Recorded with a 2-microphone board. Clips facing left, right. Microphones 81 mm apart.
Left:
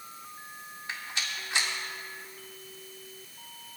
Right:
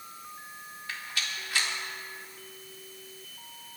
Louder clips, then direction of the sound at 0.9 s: Even; 25° left (ahead or behind).